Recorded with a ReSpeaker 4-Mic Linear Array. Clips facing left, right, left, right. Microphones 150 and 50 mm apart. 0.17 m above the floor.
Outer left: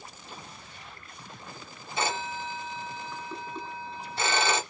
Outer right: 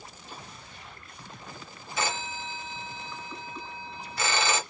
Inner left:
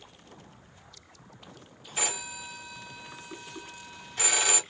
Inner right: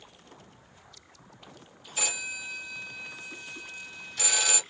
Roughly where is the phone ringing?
Left.